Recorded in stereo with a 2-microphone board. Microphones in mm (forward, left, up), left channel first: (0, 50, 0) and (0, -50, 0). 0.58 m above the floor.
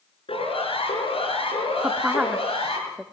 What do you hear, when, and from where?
0.3 s a siren: 70° left (ahead or behind), 8.5 m; by 2.8 s 85° left, 8.5 m
1.8 s a woman speaking: 10° right (ahead or behind), 0.9 m